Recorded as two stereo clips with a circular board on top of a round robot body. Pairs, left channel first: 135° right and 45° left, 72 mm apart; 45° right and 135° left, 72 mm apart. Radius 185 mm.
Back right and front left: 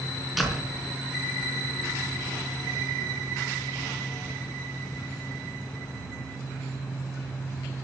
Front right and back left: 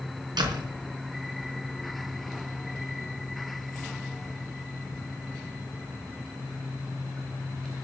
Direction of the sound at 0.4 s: 130° left.